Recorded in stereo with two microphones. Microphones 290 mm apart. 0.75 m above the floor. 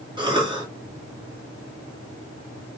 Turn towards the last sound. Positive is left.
turn(degrees=-15)  # may be behind; listen again after turning